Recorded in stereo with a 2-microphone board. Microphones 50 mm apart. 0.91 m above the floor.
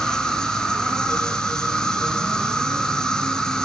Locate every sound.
0.0 s an insect: 15° left (ahead or behind), 1.5 m